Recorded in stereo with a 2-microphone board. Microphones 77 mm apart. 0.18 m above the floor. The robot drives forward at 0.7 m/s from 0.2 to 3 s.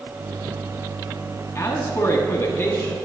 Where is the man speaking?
35° left (ahead or behind), 1.7 m; by 3.0 s 30° left (ahead or behind), 2 m.